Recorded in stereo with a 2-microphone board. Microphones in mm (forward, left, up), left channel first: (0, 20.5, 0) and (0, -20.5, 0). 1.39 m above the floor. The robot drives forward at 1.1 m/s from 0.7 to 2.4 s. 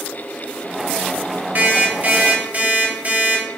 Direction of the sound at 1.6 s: 55° right (ahead or behind).